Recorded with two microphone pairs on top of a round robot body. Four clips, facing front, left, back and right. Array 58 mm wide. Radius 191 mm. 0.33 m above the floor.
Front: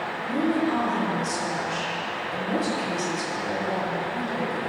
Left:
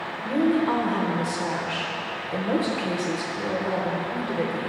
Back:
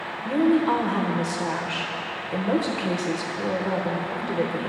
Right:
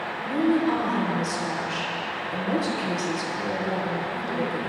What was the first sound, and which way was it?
A woman speaking, 160° left.